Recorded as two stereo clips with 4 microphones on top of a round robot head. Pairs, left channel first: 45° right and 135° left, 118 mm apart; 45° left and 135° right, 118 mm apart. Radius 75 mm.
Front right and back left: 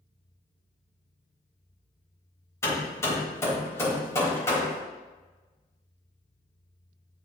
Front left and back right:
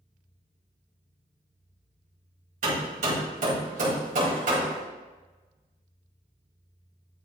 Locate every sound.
2.6 s hammering: 115° right, 4.5 m